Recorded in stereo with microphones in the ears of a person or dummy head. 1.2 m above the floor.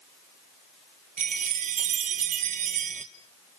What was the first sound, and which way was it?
A chime, 35° right (ahead or behind).